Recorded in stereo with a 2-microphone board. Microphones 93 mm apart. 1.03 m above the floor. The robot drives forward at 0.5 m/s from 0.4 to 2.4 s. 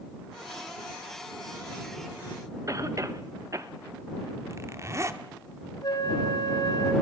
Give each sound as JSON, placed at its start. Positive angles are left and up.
{"t": 2.7, "sound": "a cough", "side_deg": -35, "distance_m": 1.1}
{"t": 4.5, "sound": "a zipper", "side_deg": -30, "distance_m": 1.0}
{"t": 5.8, "sound": "a flute", "side_deg": 50, "distance_m": 2.5}